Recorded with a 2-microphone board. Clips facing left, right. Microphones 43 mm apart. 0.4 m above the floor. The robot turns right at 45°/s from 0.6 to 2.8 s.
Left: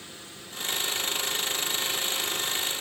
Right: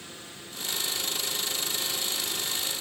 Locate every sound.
Only background noise.